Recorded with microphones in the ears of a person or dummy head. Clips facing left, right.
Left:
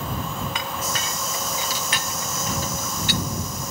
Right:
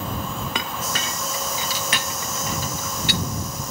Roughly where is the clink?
Right.